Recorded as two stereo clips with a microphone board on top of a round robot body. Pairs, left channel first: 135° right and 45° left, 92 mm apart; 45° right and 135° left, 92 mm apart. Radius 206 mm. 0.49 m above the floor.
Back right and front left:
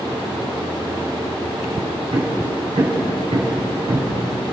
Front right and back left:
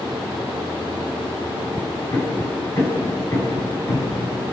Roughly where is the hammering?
Ahead.